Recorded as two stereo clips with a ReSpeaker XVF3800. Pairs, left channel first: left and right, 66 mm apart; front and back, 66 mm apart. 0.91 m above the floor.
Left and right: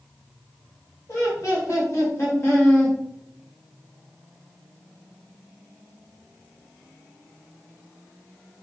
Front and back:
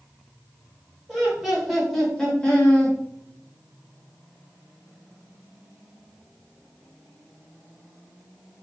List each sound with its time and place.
1.1 s laughter: 105° left, 1.5 m; by 3.0 s 45° left, 1.2 m